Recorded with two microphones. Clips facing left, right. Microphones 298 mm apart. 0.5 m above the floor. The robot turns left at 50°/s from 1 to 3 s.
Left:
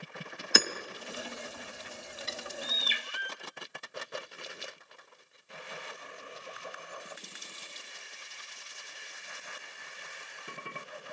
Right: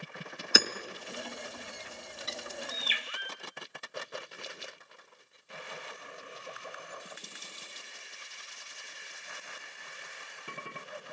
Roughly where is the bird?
Behind left.